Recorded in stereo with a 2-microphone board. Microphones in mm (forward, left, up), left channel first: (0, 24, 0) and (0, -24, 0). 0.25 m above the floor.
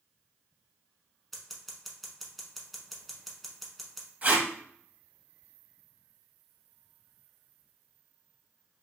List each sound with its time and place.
1.3 s scissors: centre (ahead or behind), 0.9 m
4.2 s tape being pulled: 35° right (ahead or behind), 0.8 m